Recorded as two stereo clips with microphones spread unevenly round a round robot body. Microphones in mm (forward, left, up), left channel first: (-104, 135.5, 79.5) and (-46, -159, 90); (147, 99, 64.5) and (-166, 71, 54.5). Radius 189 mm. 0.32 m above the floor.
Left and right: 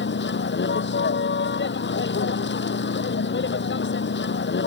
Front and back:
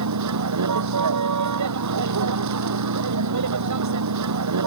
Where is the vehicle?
155° left.